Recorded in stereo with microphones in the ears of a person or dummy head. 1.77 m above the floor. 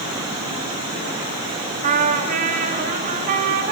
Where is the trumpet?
45° right (ahead or behind), 4.5 m.